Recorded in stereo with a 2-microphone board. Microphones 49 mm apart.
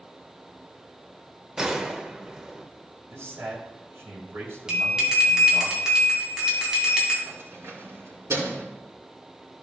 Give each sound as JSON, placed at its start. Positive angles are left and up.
{"t": 1.6, "sound": "a gunshot", "side_deg": -15, "distance_m": 0.8}
{"t": 3.1, "sound": "a man speaking", "side_deg": -60, "distance_m": 3.0}
{"t": 4.7, "sound": "a bell", "side_deg": -10, "distance_m": 3.0}
{"t": 7.2, "sound": "keys jangling", "side_deg": -65, "distance_m": 3.5}